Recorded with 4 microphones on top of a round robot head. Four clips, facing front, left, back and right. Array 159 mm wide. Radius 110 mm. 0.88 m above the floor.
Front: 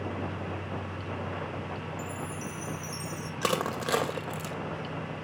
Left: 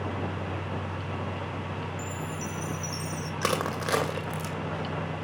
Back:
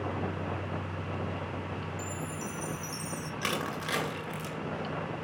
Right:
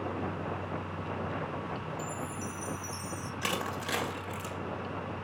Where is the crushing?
45° left, 2 m.